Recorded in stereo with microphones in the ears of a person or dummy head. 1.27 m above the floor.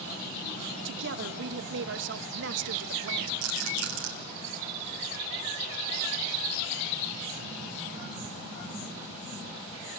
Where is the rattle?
70° right (ahead or behind), 3 m.